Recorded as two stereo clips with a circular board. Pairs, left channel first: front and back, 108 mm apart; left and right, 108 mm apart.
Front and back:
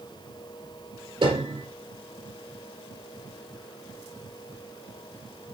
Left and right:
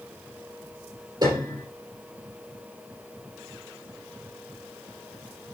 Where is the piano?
145° right, 3.5 m.